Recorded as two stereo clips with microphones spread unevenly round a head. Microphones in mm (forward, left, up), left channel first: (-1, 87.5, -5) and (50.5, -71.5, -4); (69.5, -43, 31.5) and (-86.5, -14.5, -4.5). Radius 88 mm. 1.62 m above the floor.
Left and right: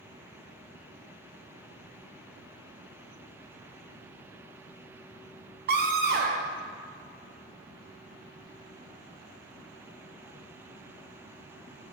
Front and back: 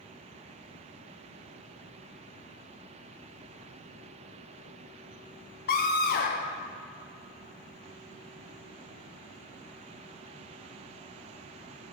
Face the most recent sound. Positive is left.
turn(degrees=-40)